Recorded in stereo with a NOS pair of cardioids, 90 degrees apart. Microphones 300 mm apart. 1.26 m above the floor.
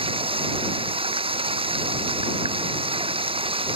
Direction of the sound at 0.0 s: 15° right.